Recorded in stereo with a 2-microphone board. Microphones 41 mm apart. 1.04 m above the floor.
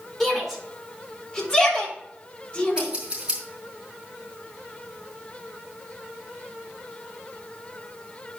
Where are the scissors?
20° right (ahead or behind), 5 m.